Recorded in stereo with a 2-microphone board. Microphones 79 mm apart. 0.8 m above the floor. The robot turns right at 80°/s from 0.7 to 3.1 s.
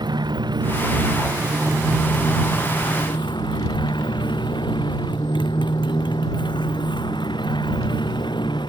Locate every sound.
0.0 s a motorcycle: 110° right; by 8.7 s 80° left